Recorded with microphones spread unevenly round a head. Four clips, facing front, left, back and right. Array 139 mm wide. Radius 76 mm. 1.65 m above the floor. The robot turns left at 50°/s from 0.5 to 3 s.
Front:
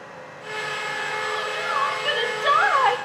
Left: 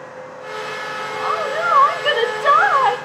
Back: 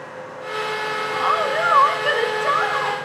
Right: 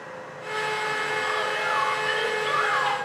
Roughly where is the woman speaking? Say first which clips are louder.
Left 6 dB, back 11 dB; behind left.